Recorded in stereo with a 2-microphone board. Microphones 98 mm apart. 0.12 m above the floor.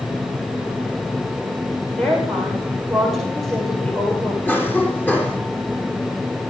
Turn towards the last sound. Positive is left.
turn(degrees=15)  # may be behind; listen again after turning